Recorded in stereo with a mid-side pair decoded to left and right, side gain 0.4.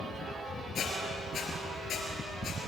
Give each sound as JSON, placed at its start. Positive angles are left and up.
{"t": 0.8, "sound": "a squeak", "azimuth_deg": 65, "distance_m": 4.5}